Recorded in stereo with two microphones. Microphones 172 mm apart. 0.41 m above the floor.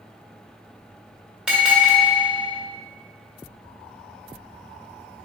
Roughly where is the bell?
Centre.